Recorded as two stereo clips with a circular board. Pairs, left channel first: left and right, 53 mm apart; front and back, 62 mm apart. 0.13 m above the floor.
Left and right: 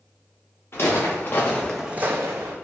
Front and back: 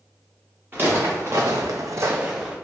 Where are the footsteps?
125° left, 1.6 m; by 2.5 s 100° right, 1.0 m.